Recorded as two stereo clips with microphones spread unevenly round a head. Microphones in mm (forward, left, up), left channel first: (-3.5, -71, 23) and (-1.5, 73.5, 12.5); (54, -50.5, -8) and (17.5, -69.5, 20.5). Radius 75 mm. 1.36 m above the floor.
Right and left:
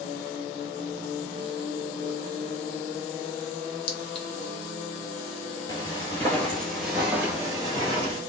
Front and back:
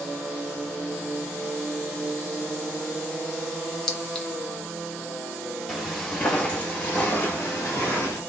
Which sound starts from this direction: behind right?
Footsteps, at 5.7 s.